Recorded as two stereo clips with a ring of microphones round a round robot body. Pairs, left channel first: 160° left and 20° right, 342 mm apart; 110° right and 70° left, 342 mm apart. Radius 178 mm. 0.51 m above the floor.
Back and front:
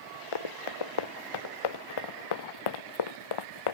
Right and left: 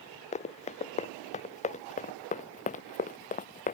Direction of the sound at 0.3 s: 175° left.